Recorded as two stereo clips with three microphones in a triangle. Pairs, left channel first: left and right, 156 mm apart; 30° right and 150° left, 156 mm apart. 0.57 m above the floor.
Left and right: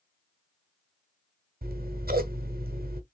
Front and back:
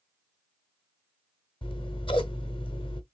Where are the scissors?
85° right, 0.9 m.